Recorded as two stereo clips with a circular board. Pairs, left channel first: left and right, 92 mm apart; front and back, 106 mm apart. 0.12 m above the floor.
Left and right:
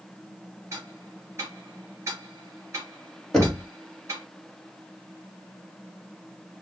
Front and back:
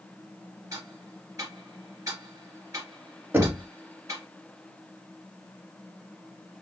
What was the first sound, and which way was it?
Ticking, 135° right.